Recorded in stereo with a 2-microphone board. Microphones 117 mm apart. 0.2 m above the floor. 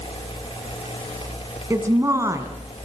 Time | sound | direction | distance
1.7 | a woman speaking | 25° right (ahead or behind) | 1.6 m